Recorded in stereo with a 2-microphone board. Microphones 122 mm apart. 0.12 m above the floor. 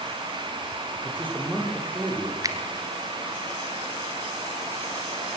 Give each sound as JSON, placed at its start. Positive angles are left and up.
{"t": 1.0, "sound": "a man speaking", "side_deg": -15, "distance_m": 6.0}
{"t": 2.4, "sound": "a finger snap", "side_deg": -30, "distance_m": 1.3}